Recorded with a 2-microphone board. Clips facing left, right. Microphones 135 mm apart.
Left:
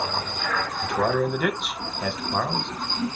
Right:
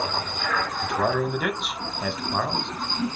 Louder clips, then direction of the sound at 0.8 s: Left 2 dB; centre (ahead or behind).